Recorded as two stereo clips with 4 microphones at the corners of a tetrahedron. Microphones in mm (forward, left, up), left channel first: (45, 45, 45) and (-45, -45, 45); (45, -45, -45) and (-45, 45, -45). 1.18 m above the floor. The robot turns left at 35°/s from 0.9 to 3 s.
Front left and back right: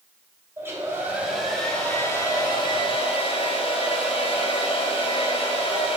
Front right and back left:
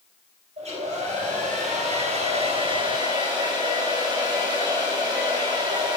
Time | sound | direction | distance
0.6 | a hair dryer | 155° left | 3 m